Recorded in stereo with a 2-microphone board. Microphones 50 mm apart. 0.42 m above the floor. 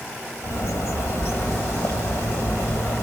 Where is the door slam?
No door slam in this recording.